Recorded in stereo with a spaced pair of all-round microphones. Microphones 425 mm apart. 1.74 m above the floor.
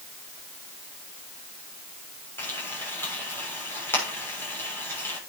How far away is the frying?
About 7 m.